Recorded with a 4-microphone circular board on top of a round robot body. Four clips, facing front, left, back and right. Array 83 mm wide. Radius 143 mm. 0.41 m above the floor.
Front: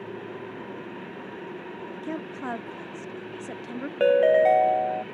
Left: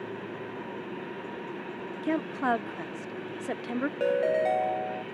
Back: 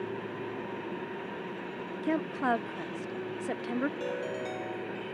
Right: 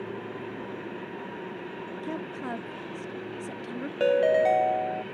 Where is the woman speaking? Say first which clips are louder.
Left 8 dB, back 5 dB; 120° left.